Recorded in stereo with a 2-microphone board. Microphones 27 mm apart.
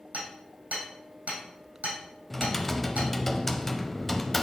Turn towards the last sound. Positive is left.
turn(degrees=10)  # may be behind; listen again after turning